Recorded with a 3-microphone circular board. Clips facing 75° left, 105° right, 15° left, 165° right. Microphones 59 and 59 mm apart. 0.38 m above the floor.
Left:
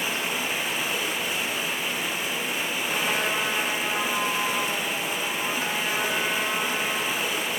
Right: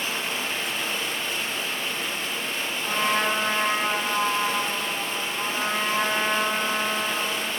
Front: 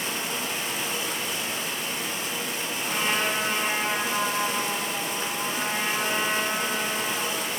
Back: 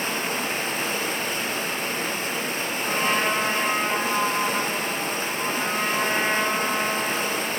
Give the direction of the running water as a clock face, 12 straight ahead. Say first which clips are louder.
Left 1 dB, back 4 dB; 7 o'clock.